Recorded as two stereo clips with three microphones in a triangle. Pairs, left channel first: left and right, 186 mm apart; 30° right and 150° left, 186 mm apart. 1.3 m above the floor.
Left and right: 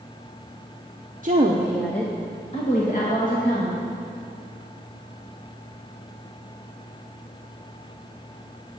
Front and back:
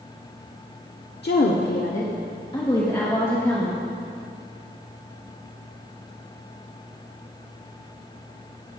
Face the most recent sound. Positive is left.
turn(degrees=50)